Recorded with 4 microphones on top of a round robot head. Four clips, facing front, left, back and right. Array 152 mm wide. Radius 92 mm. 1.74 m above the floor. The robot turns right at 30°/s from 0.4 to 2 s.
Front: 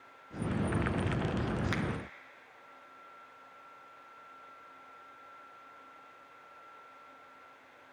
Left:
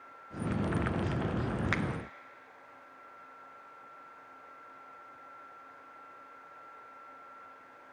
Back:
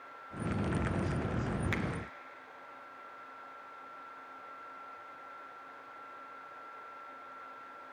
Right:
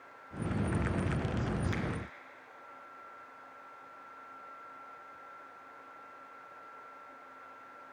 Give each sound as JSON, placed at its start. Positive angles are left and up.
{"t": 1.7, "sound": "a finger snap", "azimuth_deg": 80, "distance_m": 0.8}